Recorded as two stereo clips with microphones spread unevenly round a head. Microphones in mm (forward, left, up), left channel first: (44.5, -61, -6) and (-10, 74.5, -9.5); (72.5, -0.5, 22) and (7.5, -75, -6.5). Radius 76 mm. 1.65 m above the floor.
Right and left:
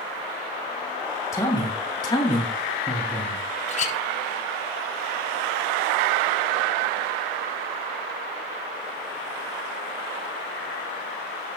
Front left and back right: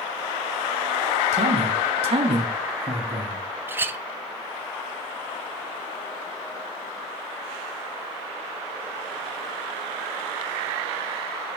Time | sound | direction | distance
1.3 | a man speaking | 140° right | 2.5 m
3.7 | a clink | 55° right | 0.7 m